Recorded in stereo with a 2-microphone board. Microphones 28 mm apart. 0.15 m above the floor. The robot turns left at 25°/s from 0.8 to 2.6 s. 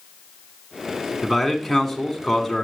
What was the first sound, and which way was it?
A man speaking, 5° right (ahead or behind).